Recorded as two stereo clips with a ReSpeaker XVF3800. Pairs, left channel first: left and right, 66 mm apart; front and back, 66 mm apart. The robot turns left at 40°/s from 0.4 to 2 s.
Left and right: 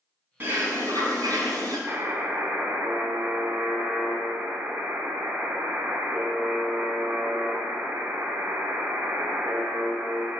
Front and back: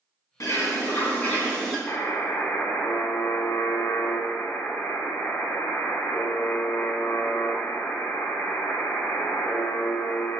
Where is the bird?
35° right, 2.5 m; by 1.8 s 90° right, 2.5 m.